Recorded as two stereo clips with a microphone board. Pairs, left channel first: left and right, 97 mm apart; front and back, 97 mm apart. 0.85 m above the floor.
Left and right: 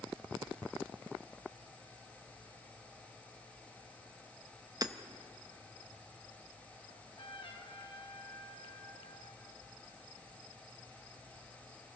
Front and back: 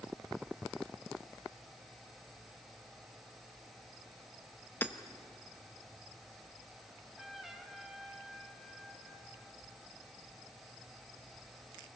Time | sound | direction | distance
4.8 | hammering | 60° right | 0.8 m
6.9 | a trumpet | 95° left | 1.9 m